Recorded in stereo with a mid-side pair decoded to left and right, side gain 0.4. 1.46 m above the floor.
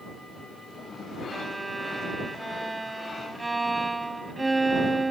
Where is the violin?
15° right.